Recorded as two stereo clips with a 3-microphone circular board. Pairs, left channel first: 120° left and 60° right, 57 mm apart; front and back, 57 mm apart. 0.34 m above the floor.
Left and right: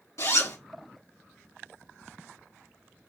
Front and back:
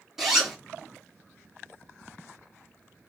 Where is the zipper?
100° left, 3 m.